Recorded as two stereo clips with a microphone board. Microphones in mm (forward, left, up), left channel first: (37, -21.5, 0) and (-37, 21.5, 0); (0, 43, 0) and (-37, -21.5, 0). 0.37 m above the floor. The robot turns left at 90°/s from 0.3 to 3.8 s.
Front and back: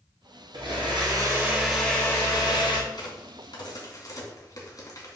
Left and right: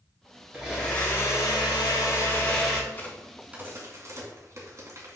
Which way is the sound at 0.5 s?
165° left.